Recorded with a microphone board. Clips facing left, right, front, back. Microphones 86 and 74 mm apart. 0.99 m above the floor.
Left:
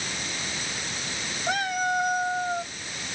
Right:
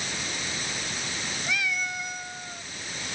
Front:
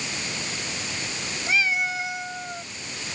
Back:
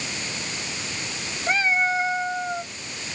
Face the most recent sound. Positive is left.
turn(degrees=120)